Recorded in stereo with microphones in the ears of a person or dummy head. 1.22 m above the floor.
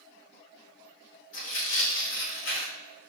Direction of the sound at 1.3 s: 85° left.